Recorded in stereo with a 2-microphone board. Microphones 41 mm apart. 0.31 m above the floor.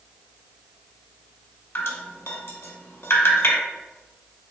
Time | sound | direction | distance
1.8 | dripping | 80° left | 0.8 m